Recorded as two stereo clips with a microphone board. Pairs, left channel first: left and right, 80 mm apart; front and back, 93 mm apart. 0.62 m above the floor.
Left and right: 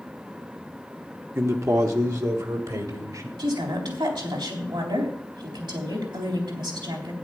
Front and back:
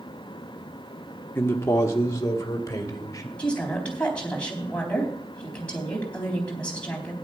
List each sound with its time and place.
1.4 s a man speaking: 55° right, 0.9 m
3.4 s a woman speaking: 75° right, 3.5 m